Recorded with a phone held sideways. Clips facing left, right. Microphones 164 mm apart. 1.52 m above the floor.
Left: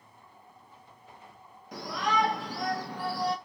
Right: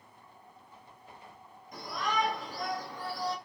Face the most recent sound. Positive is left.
turn(degrees=65)  # may be behind; listen again after turning